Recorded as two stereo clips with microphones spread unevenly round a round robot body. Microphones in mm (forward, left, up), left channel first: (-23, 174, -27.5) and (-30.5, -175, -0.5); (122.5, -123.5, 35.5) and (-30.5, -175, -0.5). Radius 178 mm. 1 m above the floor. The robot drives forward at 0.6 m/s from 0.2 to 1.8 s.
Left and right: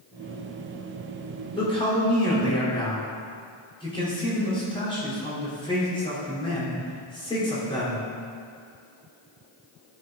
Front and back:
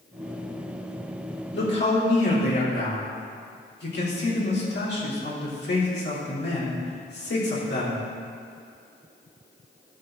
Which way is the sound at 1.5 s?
10° left.